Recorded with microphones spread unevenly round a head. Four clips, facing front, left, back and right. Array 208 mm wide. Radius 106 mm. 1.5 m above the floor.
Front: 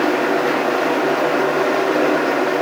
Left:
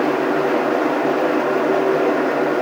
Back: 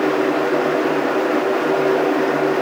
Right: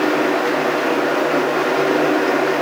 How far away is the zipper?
I don't hear a zipper.